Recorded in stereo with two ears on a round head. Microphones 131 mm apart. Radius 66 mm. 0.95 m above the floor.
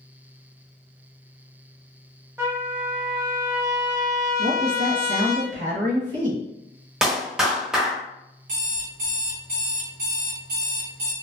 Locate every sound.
2.4 s a trumpet: 20° right (ahead or behind), 1.1 m
4.4 s a woman speaking: 65° right (ahead or behind), 1.3 m
7.0 s a clap: 5° right (ahead or behind), 0.7 m
8.5 s an alarm clock: 65° right (ahead or behind), 1.3 m